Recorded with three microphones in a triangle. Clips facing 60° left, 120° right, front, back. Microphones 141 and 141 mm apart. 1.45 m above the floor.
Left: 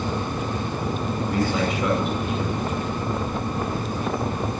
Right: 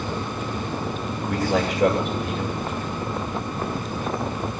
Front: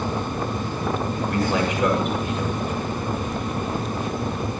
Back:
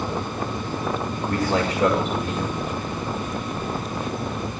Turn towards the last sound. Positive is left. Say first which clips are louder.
# right 2 dB, back 1 dB
turn(degrees=-125)